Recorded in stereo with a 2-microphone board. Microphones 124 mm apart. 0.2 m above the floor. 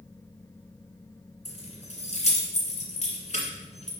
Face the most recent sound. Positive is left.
turn(degrees=60)  # may be behind; listen again after turning